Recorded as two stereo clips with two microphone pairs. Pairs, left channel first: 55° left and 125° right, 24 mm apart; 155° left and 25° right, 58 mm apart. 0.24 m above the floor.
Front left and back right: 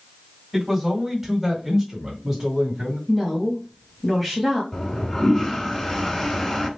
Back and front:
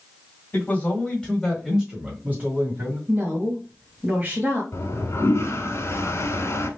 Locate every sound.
0.5 s a man speaking: 150° left, 1.8 m; by 3.0 s 40° right, 2 m
3.1 s a woman speaking: 30° right, 1.2 m
4.7 s a toilet flushing: 120° left, 1.0 m